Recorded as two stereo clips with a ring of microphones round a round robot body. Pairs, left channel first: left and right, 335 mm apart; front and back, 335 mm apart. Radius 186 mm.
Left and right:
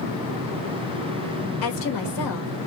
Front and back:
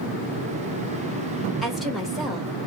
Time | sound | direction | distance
1.6 | a woman speaking | 90° left | 1.6 m